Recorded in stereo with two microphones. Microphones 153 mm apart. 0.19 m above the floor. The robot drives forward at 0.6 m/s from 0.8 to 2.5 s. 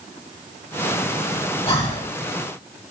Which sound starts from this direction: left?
Breathing, at 1.7 s.